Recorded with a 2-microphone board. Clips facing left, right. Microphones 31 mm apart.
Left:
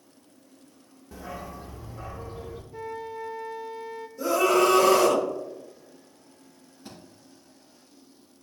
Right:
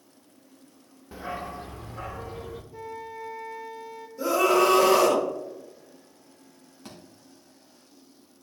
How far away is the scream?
About 2 m.